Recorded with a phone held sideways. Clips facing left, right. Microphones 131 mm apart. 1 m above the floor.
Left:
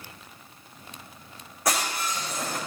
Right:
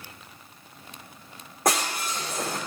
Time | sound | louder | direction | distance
1.6 | breaking glass | right 2 dB | 50° right (ahead or behind) | 5.5 m